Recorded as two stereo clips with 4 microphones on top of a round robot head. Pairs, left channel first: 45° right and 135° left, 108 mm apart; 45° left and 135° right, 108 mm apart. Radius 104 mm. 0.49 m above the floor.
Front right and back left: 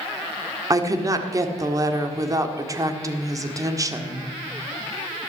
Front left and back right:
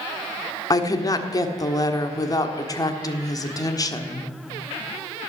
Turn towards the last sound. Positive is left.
turn(degrees=90)